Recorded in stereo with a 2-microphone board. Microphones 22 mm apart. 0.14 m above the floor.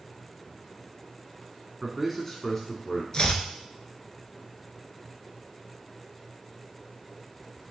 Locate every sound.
1.8 s a man speaking: 10° right (ahead or behind), 1.3 m; by 3.0 s 35° left (ahead or behind), 1.9 m
3.1 s chopping: 35° left (ahead or behind), 0.8 m